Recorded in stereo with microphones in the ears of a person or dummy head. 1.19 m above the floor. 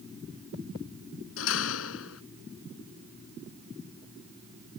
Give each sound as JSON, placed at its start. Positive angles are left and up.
{"t": 1.4, "sound": "a door slam", "side_deg": 75}